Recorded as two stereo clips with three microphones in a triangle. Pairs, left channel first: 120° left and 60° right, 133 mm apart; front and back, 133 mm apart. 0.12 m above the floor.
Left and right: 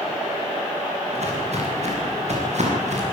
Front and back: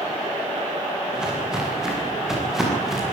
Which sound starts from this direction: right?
Footsteps, at 1.1 s.